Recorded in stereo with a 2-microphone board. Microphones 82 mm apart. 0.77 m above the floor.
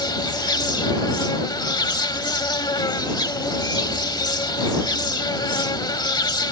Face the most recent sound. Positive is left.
turn(degrees=60)  # may be behind; listen again after turning